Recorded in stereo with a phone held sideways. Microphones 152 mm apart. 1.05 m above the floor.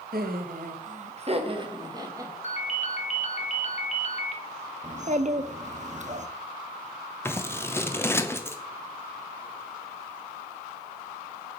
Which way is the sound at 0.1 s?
75° right (ahead or behind).